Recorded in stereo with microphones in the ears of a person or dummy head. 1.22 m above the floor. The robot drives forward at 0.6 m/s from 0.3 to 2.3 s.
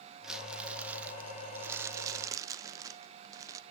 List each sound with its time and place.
0.2 s crumpling: 10° right (ahead or behind), 1.3 m; by 3.6 s 20° right (ahead or behind), 0.5 m